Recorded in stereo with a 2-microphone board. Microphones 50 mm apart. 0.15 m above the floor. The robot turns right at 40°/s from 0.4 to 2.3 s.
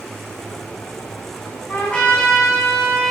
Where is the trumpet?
40° left (ahead or behind), 4 m; by 3.1 s 15° left (ahead or behind), 4 m.